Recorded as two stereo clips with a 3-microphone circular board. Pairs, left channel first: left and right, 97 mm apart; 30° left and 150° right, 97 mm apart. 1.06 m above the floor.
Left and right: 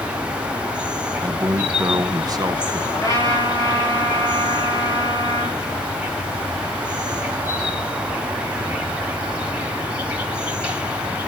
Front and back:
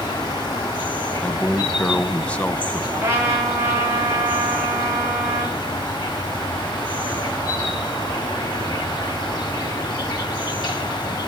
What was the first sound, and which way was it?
An insect, 10° right.